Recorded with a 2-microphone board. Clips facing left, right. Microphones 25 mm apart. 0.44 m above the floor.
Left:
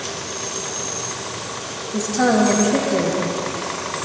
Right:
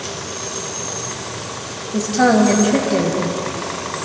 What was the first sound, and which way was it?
A woman speaking, 25° right (ahead or behind).